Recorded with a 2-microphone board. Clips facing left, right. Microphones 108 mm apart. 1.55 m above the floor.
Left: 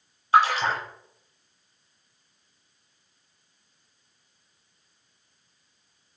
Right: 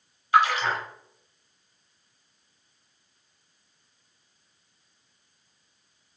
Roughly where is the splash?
Left.